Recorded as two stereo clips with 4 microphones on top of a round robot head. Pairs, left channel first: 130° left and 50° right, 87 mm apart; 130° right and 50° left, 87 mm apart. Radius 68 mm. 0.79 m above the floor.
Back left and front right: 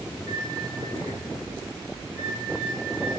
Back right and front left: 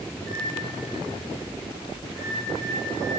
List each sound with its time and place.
0.1 s a microwave: 170° left, 3 m